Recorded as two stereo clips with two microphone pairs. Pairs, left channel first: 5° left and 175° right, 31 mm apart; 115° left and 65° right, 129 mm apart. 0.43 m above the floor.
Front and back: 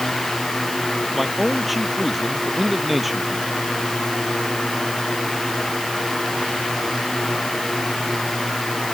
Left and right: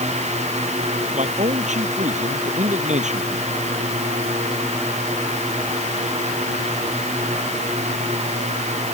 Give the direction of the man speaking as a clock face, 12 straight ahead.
3 o'clock.